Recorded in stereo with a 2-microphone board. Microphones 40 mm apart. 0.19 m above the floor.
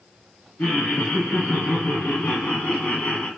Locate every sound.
0.6 s laughter: 55° left (ahead or behind), 2 m; by 3.3 s 30° left (ahead or behind), 1.1 m